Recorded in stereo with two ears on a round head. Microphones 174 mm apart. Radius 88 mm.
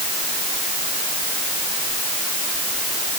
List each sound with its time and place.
Only background noise.